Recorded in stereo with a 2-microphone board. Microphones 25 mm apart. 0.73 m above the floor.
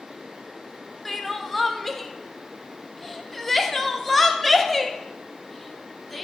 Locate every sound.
1.1 s crying: 15° left (ahead or behind), 0.6 m